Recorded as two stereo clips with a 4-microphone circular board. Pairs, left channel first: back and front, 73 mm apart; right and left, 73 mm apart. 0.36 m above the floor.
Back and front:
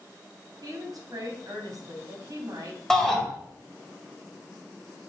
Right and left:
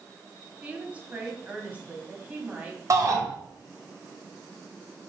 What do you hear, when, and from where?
0.6 s a woman speaking: 20° left, 2 m
2.9 s a shout: 100° left, 1.8 m